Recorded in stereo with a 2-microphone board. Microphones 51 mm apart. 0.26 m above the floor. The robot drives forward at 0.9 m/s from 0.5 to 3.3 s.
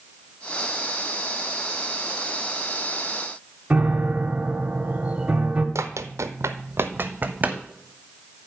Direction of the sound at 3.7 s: 25° right (ahead or behind).